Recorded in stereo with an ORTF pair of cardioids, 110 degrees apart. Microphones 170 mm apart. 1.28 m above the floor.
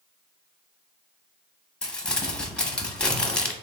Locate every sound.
1.8 s crumpling: 5° left, 0.8 m